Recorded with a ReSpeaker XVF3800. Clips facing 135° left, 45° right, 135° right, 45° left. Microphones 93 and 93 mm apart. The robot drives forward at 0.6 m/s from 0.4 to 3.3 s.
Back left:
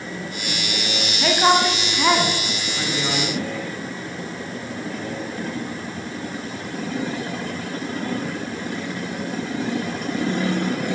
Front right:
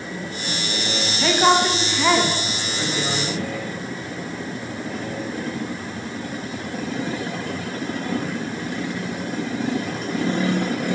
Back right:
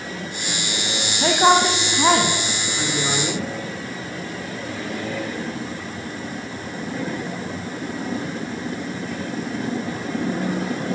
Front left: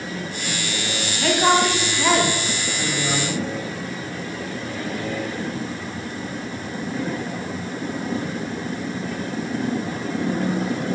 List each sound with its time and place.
1.2 s a woman speaking: 135° right, 1.1 m; by 3.5 s 170° right, 1.9 m